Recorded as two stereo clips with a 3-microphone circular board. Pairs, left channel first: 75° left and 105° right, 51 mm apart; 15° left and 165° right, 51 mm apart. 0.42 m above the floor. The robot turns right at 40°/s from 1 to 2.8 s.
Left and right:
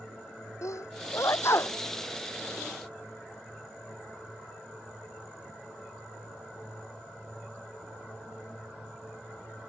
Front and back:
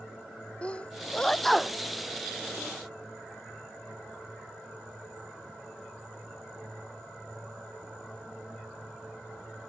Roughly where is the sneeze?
Left.